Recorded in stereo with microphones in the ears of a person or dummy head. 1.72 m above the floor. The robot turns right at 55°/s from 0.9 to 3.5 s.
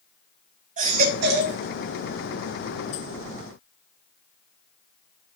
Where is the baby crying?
130° right, 1.3 m; by 1.6 s 95° right, 1.3 m.